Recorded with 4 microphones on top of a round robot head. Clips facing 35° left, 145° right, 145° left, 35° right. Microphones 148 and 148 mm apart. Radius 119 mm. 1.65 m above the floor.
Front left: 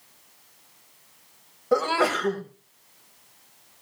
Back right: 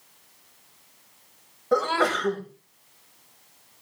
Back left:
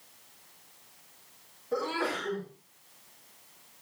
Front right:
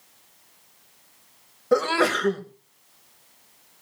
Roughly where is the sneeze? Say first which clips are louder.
Front left 1 dB, front right 10 dB; ahead right.